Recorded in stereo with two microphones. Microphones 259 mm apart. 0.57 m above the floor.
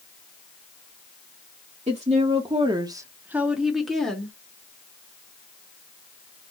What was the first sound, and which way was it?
A woman speaking, 25° right (ahead or behind).